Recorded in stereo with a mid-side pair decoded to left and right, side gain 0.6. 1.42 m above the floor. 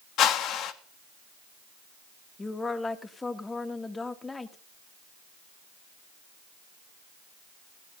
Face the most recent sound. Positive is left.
turn(degrees=20)